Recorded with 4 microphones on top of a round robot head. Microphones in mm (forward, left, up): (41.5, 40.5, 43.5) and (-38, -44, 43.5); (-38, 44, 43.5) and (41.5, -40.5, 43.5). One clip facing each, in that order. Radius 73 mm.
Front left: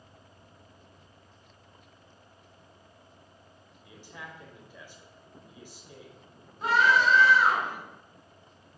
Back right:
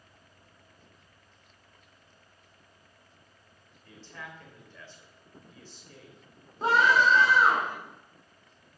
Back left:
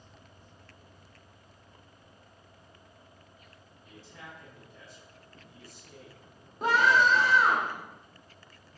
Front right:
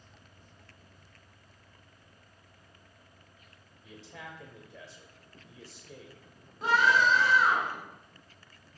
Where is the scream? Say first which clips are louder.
Back right 1 dB, back left 1 dB; 170° left, 2 m.